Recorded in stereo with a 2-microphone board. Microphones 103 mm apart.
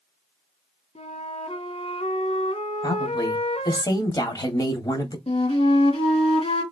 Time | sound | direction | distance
0.9 | a flute | 80° left | 0.8 m
2.8 | a woman speaking | 40° left (ahead or behind) | 1.8 m
5.3 | a flute | 75° left (ahead or behind) | 2.5 m